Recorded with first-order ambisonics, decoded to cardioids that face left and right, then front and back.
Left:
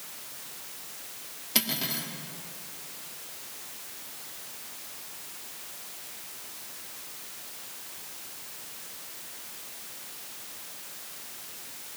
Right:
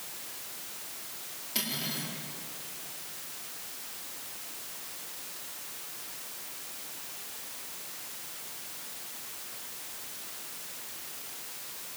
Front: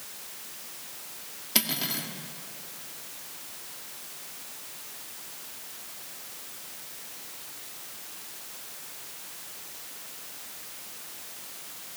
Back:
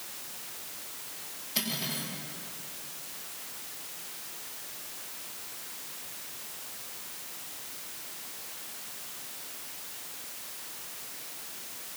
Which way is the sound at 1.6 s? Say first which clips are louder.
Left 4 dB, front 4 dB; 30° left.